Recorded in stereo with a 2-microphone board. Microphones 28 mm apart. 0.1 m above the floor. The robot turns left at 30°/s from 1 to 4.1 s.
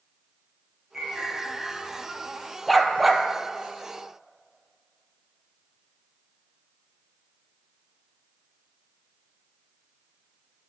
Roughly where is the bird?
Behind.